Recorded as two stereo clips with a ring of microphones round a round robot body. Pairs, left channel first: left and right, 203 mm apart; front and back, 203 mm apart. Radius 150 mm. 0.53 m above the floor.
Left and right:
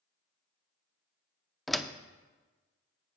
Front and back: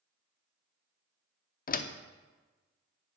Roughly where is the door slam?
Ahead.